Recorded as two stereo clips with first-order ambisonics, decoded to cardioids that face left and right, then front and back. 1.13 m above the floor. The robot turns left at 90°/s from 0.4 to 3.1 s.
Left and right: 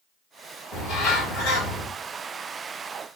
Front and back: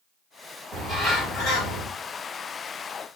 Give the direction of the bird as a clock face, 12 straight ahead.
8 o'clock.